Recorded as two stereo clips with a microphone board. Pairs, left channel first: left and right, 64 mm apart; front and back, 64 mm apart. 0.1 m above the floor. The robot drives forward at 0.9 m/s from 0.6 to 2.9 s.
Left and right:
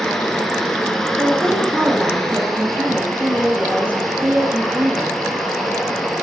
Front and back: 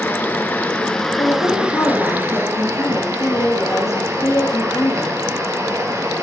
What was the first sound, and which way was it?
Running water, 15° left.